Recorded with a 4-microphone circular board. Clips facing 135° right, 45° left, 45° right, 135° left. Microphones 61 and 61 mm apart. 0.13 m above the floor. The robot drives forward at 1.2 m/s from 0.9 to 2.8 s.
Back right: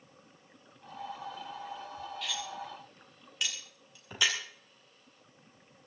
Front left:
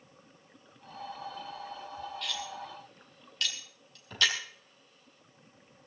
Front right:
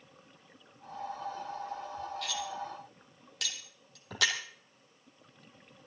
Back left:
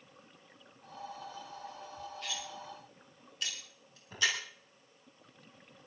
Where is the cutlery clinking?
50° right, 3.5 m; by 4.4 s 60° right, 3 m.